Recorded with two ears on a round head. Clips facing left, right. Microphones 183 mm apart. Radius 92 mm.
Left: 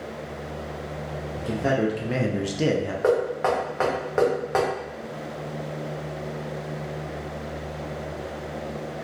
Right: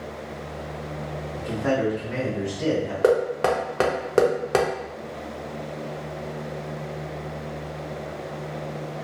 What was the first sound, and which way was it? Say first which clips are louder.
A man speaking: even; 25° left (ahead or behind).